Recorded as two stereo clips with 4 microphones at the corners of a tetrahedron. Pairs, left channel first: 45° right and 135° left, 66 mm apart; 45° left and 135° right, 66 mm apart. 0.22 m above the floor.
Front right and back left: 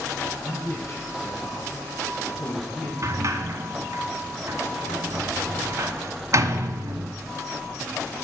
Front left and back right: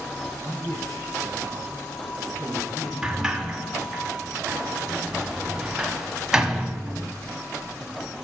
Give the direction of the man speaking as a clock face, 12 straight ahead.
12 o'clock.